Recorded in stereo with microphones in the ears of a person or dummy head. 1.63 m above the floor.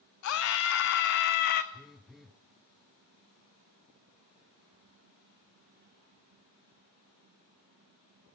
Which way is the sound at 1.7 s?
Centre (ahead or behind).